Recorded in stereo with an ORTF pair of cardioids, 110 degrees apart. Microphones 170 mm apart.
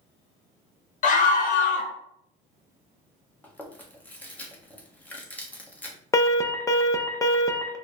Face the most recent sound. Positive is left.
turn(degrees=20)